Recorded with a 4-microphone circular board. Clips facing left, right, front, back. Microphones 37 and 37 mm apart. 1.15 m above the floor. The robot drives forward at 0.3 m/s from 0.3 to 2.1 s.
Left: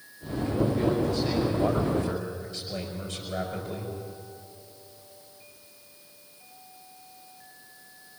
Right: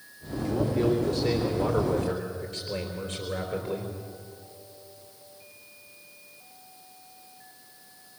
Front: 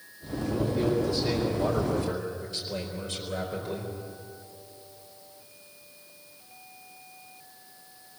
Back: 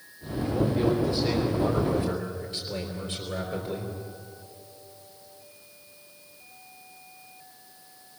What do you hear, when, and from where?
0.4 s a man speaking: 115° right, 4.5 m; by 3.9 s 120° right, 4.5 m